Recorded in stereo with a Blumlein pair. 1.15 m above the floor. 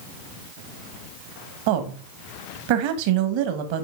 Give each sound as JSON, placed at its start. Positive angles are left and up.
{"t": 1.7, "sound": "a woman speaking", "azimuth_deg": -45, "distance_m": 1.1}